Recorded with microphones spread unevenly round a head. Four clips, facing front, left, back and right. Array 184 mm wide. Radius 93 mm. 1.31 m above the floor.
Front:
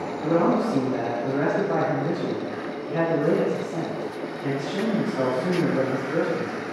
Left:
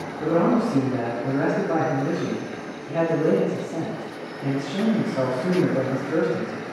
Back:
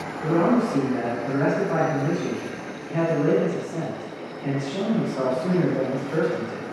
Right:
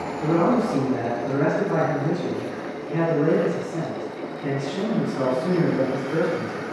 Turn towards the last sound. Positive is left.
turn(degrees=90)